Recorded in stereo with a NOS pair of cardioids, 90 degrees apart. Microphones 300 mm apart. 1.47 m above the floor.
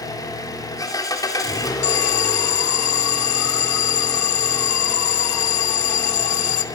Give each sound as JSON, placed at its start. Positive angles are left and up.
{"t": 0.0, "sound": "an engine running", "azimuth_deg": 10, "distance_m": 4.0}
{"t": 1.8, "sound": "an alarm", "azimuth_deg": 65, "distance_m": 1.4}